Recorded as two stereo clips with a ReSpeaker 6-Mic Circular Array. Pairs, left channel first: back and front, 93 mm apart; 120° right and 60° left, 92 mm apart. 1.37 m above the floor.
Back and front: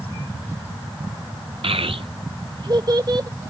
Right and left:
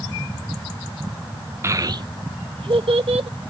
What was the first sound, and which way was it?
A child speaking, straight ahead.